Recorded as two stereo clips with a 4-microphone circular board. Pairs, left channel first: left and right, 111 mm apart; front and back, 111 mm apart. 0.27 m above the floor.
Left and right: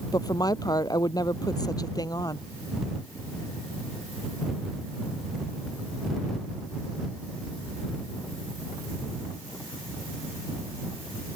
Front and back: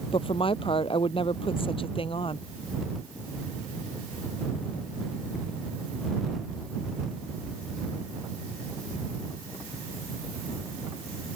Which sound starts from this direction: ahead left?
A woman speaking, at 0.1 s.